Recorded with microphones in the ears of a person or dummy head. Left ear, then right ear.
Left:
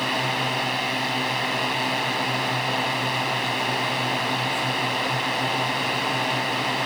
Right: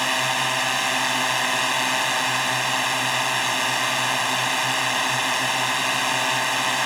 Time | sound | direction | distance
0.0 | a drone | 45° right (ahead or behind) | ?